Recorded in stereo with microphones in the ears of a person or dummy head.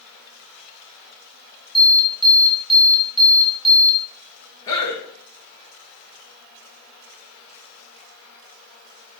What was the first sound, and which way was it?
An alarm, 5° left (ahead or behind).